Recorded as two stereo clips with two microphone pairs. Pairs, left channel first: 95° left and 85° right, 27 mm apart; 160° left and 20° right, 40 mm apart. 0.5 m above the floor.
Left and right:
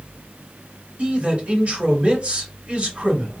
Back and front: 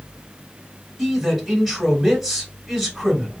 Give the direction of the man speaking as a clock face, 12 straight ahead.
3 o'clock.